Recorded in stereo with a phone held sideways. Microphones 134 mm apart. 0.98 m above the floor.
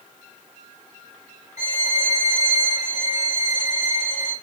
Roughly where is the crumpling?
I don't hear crumpling.